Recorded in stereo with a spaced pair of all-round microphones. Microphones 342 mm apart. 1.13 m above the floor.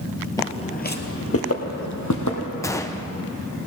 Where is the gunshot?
10° left (ahead or behind), 0.6 m.